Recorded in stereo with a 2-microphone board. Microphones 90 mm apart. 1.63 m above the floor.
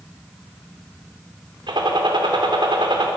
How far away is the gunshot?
About 3.5 m.